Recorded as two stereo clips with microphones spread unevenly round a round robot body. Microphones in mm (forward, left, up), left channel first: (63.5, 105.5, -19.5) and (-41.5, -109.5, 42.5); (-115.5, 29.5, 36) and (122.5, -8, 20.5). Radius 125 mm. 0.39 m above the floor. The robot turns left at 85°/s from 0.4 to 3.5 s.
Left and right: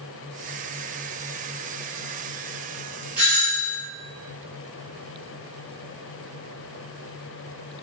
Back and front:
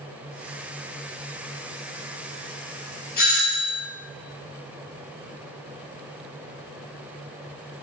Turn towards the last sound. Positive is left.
turn(degrees=115)